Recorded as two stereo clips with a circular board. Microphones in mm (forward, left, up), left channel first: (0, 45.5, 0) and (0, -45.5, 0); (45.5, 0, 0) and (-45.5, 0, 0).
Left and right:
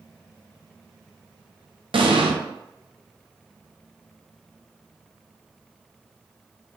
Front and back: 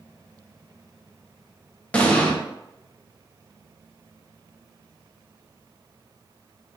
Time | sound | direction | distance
1.9 | an explosion | 75° right | 0.6 m